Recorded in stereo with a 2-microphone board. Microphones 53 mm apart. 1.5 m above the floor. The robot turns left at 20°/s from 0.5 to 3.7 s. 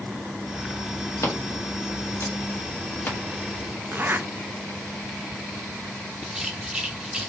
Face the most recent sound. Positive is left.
turn(degrees=-15)  # may be behind; listen again after turning